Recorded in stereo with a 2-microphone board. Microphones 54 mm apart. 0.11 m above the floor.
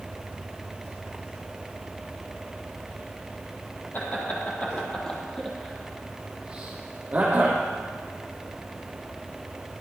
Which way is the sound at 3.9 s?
35° left (ahead or behind).